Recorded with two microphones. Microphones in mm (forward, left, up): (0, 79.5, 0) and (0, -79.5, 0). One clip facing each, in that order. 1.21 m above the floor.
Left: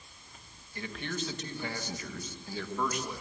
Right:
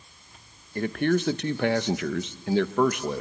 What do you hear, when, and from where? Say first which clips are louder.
0.8 s a man speaking: right 14 dB; 55° right (ahead or behind), 1.2 m; by 3.2 s 60° right (ahead or behind), 1.4 m